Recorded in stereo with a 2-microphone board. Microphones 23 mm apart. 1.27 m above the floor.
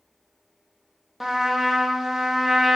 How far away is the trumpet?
About 1.3 m.